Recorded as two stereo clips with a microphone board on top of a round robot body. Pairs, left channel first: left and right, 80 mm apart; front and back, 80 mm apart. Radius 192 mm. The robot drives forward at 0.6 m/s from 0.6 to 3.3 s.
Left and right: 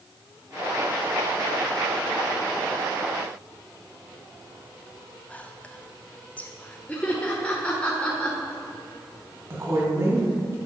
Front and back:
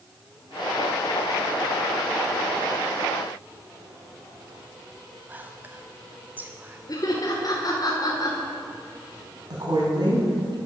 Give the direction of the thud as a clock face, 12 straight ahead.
No thud in this recording.